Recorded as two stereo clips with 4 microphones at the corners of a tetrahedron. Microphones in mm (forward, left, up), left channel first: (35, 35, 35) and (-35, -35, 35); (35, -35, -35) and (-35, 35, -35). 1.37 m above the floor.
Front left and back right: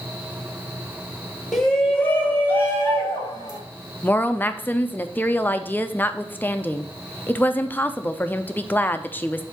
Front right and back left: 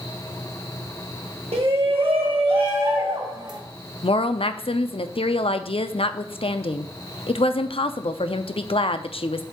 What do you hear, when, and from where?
1.5 s a shout: 135° left, 1.5 m; by 3.6 s 100° left, 2.5 m
4.0 s a woman speaking: 25° right, 0.5 m